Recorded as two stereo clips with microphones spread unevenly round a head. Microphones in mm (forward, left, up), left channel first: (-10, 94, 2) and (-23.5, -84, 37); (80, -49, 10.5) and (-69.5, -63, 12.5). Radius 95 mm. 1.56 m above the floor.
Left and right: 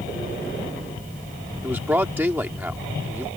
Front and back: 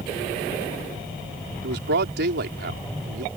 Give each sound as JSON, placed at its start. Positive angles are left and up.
{"t": 1.6, "sound": "a man speaking", "azimuth_deg": -175}